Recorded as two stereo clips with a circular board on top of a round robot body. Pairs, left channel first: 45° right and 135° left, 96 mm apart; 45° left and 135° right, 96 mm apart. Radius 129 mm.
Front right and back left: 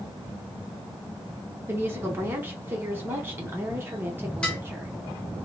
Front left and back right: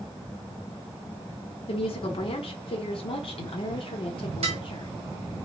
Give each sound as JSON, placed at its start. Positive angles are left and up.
{"t": 1.7, "sound": "a woman speaking", "azimuth_deg": 65, "distance_m": 0.9}
{"t": 4.4, "sound": "dishes clattering", "azimuth_deg": -125, "distance_m": 1.1}